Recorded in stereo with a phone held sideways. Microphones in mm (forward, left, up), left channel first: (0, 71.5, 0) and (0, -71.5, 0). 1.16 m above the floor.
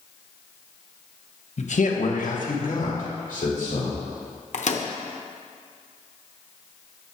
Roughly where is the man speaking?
Left.